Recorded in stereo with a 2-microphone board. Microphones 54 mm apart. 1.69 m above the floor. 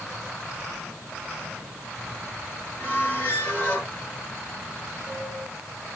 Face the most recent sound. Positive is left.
turn(degrees=25)  # may be behind; listen again after turning